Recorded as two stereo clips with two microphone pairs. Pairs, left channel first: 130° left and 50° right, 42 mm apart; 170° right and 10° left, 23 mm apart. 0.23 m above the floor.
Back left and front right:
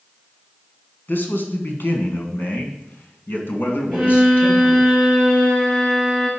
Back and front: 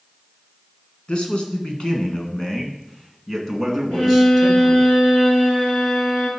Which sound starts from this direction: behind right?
A violin, at 3.9 s.